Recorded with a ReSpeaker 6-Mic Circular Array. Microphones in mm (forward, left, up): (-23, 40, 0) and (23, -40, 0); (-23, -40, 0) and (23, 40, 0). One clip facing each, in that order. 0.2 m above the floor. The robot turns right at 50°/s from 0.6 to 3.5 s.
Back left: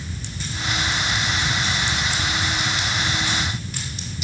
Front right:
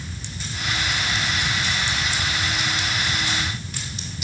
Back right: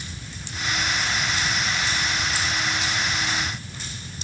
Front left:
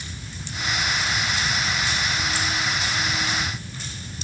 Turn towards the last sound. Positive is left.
No sound to turn to.